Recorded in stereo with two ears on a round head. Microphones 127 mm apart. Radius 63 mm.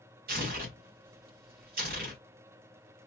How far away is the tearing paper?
About 1.9 m.